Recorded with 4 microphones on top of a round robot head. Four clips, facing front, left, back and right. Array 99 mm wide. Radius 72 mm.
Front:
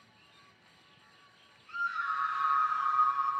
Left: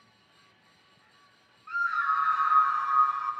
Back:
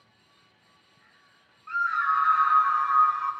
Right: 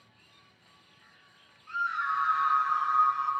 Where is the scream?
155° left, 3.5 m; by 3.3 s 165° left, 5 m.